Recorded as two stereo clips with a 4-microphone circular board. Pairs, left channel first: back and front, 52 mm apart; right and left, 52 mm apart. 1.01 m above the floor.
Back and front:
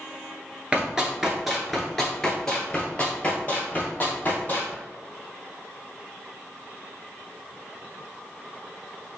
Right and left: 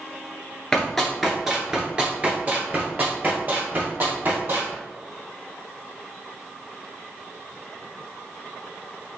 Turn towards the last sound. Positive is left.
turn(degrees=125)